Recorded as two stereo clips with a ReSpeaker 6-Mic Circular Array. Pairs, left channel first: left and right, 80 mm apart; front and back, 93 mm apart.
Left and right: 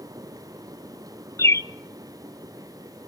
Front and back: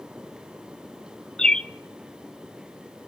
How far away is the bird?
About 0.6 m.